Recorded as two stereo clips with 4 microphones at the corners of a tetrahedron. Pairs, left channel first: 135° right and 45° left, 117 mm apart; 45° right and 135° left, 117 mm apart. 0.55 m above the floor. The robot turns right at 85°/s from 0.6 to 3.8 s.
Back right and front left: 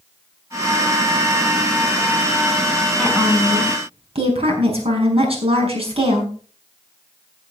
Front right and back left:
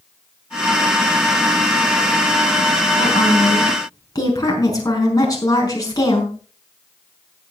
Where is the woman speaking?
55° right, 5.5 m; by 6.3 s 10° left, 5.5 m.